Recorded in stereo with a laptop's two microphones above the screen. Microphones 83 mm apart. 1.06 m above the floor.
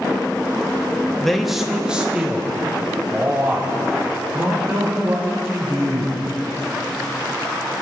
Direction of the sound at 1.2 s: 5° left (ahead or behind).